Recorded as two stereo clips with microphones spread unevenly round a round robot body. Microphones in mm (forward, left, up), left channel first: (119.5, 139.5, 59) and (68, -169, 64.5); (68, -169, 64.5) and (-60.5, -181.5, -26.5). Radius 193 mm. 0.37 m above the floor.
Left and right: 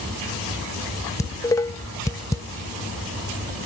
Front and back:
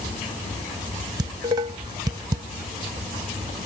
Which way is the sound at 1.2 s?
160° left.